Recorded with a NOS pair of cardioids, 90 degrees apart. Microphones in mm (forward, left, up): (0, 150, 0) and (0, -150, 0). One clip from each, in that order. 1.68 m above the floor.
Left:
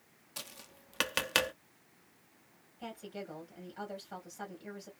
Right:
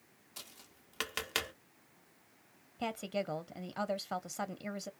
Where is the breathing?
No breathing in this recording.